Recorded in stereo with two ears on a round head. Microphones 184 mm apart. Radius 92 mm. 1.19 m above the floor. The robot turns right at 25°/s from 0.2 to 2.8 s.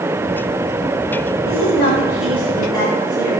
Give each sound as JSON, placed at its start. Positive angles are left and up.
{"t": 1.4, "sound": "a woman speaking", "azimuth_deg": 125, "distance_m": 6.5}